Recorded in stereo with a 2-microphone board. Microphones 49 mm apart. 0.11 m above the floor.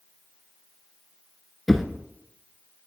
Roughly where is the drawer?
Centre.